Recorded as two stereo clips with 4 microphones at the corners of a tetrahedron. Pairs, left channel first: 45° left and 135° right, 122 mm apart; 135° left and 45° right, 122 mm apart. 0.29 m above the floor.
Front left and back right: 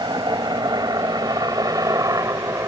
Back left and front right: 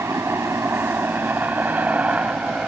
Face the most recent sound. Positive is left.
turn(degrees=-120)